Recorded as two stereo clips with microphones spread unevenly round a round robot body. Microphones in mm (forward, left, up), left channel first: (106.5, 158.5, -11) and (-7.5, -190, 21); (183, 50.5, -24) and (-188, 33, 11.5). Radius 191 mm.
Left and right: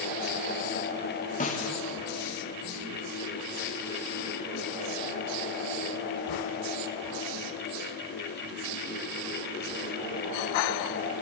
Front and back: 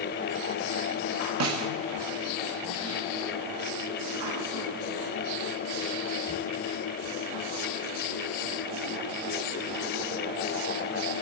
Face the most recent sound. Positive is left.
turn(degrees=135)